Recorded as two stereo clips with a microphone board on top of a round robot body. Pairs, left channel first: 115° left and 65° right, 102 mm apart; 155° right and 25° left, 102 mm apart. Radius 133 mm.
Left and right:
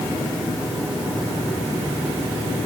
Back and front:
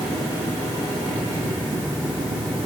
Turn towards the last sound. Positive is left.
No sound to turn to.